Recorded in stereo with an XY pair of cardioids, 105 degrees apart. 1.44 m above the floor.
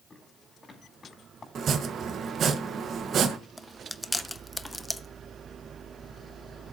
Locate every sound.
0.1 s footsteps: 30° left, 6.5 m
1.6 s chopping: 55° right, 1.5 m
3.6 s chewing: 10° left, 0.7 m